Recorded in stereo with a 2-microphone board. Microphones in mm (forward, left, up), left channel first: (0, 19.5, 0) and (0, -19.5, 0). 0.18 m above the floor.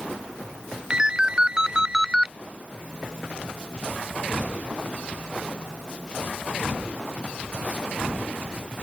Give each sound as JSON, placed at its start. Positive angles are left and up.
{"t": 0.9, "sound": "a ringtone", "side_deg": -20}